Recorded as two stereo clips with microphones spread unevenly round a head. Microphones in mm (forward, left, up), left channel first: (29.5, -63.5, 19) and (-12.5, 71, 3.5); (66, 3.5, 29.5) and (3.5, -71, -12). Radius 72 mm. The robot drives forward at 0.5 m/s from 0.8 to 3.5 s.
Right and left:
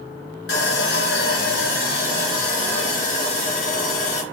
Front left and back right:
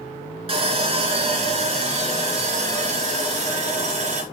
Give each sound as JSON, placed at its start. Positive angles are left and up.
{"t": 0.5, "sound": "sawing", "azimuth_deg": -95, "distance_m": 3.0}